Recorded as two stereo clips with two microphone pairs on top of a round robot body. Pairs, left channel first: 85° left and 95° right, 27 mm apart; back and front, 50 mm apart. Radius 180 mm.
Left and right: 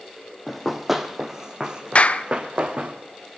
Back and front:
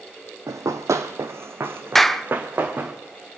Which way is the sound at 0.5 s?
5° right.